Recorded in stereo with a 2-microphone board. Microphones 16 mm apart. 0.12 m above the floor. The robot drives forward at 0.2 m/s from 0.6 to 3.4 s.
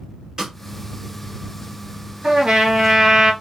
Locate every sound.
0.4 s a snare drum: 35° right (ahead or behind), 2 m
2.2 s a trumpet: 45° right (ahead or behind), 1.8 m